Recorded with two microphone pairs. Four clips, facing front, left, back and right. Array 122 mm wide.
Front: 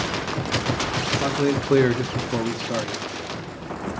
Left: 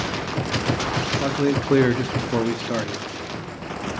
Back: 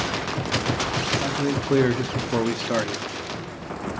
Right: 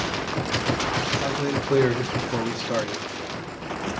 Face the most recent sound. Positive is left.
turn(degrees=180)